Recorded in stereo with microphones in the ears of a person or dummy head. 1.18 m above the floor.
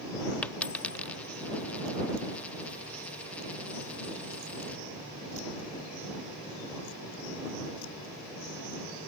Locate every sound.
0.4 s a dropped coin: 10° left (ahead or behind)